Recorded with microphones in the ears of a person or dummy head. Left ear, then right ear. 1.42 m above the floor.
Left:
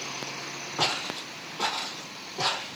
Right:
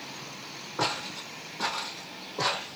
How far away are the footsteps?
About 2.0 m.